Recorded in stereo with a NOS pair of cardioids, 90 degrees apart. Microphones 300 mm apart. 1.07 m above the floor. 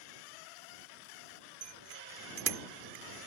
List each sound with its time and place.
1.6 s a bicycle bell: 50° right; by 3.3 s 40° right